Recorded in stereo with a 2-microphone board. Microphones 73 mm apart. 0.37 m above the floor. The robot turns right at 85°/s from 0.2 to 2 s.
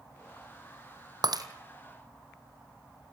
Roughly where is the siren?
No siren in this recording.